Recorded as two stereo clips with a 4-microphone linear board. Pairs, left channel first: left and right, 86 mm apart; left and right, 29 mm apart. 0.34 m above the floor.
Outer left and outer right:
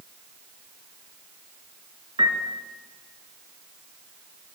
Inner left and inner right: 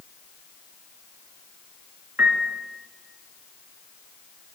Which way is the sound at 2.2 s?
80° right.